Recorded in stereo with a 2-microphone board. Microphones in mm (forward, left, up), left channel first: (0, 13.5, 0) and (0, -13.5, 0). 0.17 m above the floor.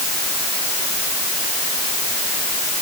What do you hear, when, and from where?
Only background noise.